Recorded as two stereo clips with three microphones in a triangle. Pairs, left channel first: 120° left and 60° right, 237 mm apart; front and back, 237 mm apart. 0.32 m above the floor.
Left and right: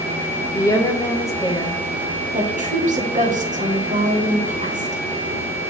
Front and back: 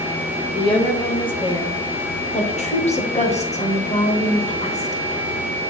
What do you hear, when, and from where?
0.5 s a woman speaking: 55° left, 1.2 m
2.3 s a woman speaking: 35° right, 1.1 m